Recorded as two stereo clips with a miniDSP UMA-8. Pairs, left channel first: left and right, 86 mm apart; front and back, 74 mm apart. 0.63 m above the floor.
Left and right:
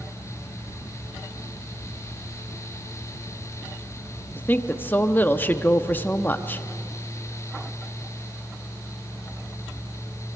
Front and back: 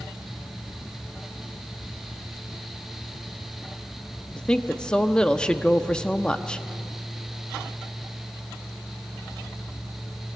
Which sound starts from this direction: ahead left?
A woman speaking, at 4.4 s.